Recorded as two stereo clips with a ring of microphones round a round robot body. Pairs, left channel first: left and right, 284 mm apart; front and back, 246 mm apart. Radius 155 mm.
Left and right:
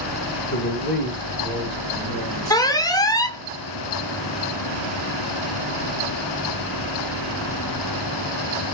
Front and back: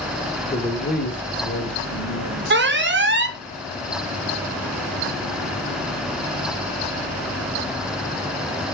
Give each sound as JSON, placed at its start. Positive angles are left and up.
{"t": 0.5, "sound": "a man speaking", "azimuth_deg": 60, "distance_m": 1.0}
{"t": 2.5, "sound": "an alarm", "azimuth_deg": 165, "distance_m": 0.7}